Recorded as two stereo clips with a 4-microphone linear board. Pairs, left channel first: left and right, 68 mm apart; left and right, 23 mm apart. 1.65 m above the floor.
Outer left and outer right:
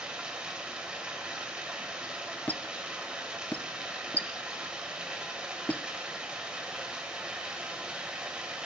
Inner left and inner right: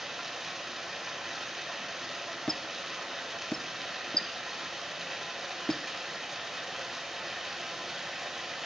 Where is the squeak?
25° left (ahead or behind), 0.6 m.